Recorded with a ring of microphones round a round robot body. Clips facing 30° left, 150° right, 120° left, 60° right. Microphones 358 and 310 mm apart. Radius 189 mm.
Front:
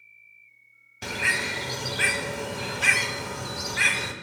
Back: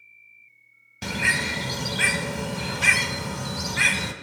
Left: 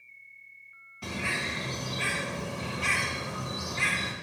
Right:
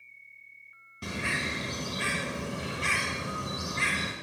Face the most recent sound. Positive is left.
turn(degrees=-135)